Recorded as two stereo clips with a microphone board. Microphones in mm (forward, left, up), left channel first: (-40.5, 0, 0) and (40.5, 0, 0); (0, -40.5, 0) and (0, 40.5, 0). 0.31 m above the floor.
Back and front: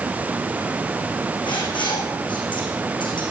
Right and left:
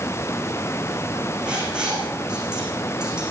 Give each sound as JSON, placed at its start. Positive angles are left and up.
{"t": 1.4, "sound": "writing", "azimuth_deg": 170, "distance_m": 8.5}